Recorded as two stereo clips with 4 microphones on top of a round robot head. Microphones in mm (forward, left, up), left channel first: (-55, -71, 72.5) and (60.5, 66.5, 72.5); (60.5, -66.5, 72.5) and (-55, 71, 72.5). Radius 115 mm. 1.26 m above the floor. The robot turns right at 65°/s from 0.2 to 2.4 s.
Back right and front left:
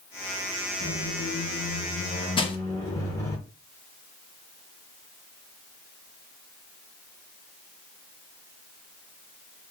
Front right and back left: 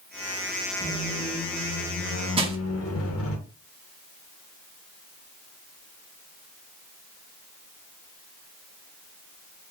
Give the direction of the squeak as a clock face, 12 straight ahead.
5 o'clock.